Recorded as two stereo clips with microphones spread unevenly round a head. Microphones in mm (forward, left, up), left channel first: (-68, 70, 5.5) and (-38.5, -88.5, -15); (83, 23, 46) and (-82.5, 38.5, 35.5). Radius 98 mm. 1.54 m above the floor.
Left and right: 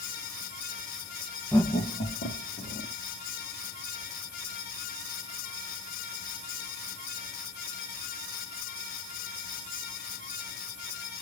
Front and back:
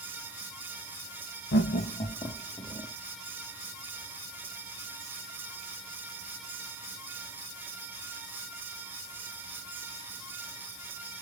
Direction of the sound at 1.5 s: 20° left.